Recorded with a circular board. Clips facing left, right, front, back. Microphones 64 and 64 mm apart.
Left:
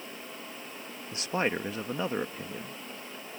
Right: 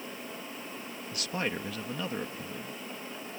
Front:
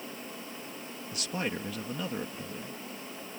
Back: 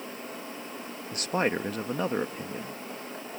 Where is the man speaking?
145° left.